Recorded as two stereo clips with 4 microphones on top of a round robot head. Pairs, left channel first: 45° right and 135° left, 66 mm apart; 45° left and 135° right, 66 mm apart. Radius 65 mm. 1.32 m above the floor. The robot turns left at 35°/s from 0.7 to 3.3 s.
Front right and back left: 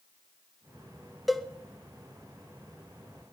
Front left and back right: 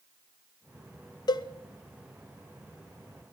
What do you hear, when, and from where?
1.3 s a cowbell: 45° left, 1.1 m; by 1.5 s 40° left, 1.1 m